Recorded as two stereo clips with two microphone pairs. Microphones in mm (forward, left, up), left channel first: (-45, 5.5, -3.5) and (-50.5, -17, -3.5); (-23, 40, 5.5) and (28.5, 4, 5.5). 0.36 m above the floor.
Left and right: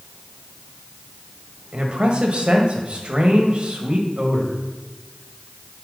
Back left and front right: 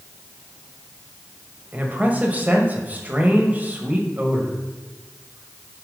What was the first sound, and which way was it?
A man speaking, 90° right.